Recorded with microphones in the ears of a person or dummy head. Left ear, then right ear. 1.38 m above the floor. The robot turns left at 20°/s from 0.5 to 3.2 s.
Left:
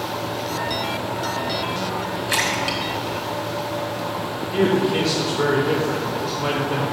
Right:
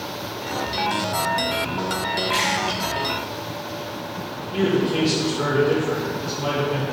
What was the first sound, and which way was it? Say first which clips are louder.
A splash: left 3 dB; 35° left (ahead or behind).